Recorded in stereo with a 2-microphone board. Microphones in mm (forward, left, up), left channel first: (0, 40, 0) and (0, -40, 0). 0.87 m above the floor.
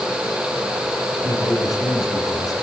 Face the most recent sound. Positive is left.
turn(degrees=50)  # may be behind; listen again after turning